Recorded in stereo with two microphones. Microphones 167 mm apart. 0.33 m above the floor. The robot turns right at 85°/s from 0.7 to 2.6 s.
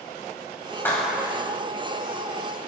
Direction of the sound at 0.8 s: 165° left.